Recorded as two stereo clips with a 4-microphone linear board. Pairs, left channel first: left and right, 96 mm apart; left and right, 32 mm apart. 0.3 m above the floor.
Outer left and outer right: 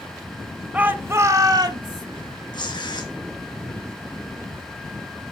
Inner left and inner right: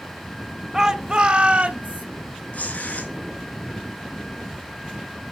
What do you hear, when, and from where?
0.7 s a shout: 15° right (ahead or behind), 0.9 m; by 2.0 s 55° right (ahead or behind), 1.4 m
2.5 s tearing paper: 50° left (ahead or behind), 3 m